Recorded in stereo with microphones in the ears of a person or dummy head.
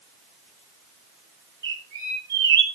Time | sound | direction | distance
1.6 | a bird | 25° right (ahead or behind) | 7 m